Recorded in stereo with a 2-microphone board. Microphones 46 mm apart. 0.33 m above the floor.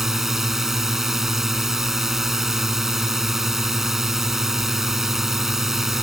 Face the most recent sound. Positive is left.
turn(degrees=-10)  # may be behind; listen again after turning